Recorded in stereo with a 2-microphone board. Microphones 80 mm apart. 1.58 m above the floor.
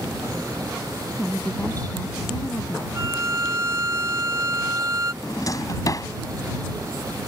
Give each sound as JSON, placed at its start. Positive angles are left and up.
{"t": 1.1, "sound": "a woman speaking", "side_deg": 35}
{"t": 3.0, "sound": "a violin", "side_deg": -35}
{"t": 5.2, "sound": "a drawer", "side_deg": 45}